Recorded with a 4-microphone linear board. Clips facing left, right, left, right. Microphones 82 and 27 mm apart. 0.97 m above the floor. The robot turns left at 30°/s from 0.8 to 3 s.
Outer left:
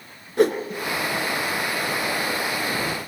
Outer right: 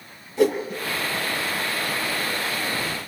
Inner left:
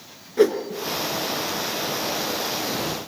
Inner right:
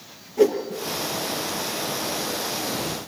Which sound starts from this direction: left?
A whoosh, at 0.4 s.